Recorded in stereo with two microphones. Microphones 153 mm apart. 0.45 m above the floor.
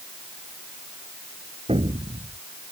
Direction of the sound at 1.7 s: 40° right (ahead or behind).